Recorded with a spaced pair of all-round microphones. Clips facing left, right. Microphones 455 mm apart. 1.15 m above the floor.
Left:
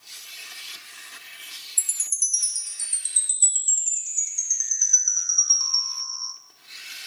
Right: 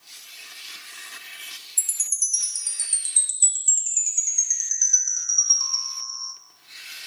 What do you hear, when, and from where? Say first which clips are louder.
1.8 s a chime: left 1 dB; 45° right (ahead or behind), 0.7 m